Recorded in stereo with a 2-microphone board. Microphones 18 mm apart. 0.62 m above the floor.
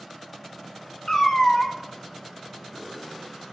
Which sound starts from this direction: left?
A cat meowing, at 1.1 s.